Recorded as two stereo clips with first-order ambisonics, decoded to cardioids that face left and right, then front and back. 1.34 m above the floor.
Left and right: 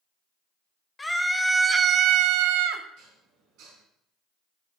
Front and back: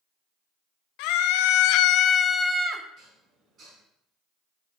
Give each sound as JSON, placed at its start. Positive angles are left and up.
{"t": 1.0, "sound": "a scream", "azimuth_deg": 10, "distance_m": 1.0}
{"t": 3.0, "sound": "dishes clattering", "azimuth_deg": -125, "distance_m": 4.0}